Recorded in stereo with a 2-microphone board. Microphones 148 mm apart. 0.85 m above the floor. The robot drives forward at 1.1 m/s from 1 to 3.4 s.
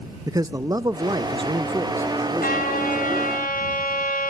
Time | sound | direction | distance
0.3 | a man speaking | 25° right (ahead or behind) | 0.6 m
2.4 | a trumpet | 80° left | 5 m